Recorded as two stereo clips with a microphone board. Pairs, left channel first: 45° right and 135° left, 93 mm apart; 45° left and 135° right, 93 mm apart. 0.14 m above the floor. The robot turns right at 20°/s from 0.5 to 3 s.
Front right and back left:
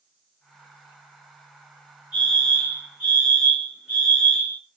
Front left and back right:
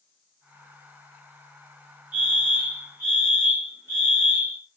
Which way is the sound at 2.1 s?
165° right.